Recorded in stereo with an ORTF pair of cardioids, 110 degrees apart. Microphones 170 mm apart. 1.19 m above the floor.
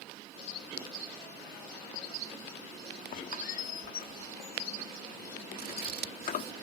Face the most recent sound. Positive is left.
turn(degrees=-60)